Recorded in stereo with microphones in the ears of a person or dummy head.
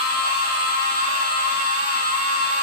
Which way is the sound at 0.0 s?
50° left (ahead or behind).